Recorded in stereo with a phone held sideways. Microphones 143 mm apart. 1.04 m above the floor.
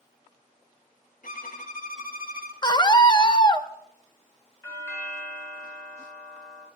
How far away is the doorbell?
About 3.5 m.